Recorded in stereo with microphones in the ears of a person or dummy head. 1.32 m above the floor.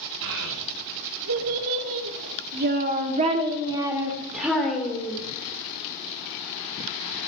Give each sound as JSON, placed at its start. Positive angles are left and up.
{"t": 0.2, "sound": "a child speaking", "side_deg": -80, "distance_m": 3.5}